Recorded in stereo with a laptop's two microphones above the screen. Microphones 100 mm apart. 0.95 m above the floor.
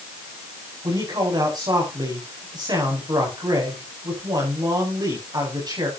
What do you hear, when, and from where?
0.8 s a man speaking: 40° right (ahead or behind), 8 m